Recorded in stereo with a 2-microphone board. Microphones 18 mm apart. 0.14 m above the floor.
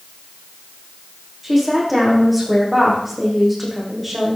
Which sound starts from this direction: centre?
A woman speaking, at 1.4 s.